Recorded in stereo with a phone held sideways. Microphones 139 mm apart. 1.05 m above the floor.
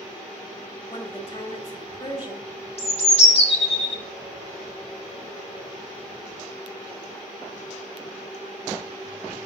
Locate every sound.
0.9 s a woman speaking: 40° left (ahead or behind), 1.8 m
2.8 s a bird: 45° left (ahead or behind), 1.1 m